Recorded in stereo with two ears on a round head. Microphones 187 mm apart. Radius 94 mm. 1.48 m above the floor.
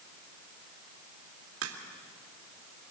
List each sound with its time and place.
1.6 s a crack: 70° right (ahead or behind), 2.5 m